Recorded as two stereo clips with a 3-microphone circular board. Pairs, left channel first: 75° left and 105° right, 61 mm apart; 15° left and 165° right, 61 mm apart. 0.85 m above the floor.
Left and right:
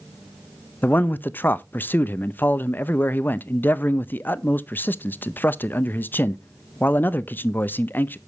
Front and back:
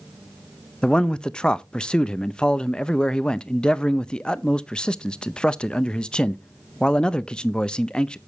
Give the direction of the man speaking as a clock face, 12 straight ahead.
9 o'clock.